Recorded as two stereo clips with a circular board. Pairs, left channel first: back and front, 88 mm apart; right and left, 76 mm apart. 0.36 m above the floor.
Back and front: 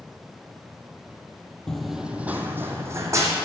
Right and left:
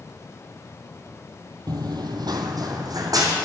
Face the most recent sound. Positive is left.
turn(degrees=55)